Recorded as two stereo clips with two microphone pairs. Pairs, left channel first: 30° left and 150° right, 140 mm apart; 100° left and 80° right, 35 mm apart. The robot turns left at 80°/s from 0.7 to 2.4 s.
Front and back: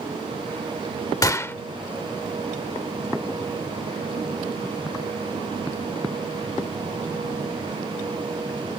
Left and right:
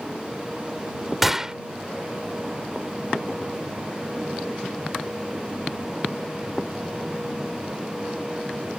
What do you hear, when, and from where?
1.2 s a gunshot: 5° left; by 1.6 s 20° right